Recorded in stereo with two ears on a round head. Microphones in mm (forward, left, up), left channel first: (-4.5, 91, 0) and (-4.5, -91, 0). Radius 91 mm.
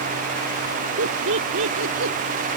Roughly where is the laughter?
Right.